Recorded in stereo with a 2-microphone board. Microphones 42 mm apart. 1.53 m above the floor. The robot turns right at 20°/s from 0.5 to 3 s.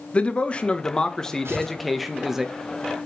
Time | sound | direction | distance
0.1 | a man speaking | 155° left | 1.5 m
1.4 | tearing paper | 85° right | 4.5 m